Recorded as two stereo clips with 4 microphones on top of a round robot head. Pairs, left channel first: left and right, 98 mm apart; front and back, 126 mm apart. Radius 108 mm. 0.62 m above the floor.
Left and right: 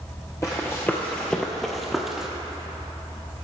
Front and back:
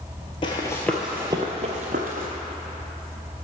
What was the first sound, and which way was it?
Running footsteps, 25° left.